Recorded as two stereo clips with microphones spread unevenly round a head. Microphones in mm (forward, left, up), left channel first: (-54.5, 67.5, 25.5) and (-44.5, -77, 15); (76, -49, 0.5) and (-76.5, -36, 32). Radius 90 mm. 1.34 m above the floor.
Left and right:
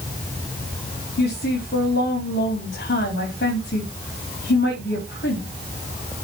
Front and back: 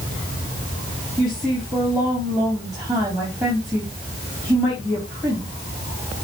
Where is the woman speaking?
105° left, 3.5 m.